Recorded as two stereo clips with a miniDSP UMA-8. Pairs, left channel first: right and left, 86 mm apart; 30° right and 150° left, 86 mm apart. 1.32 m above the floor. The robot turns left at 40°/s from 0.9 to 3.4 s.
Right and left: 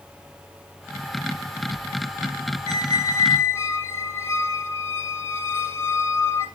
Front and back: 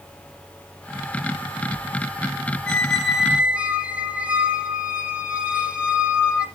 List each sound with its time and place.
2.7 s a squeak: 105° right, 2 m; by 6.5 s 135° right, 2 m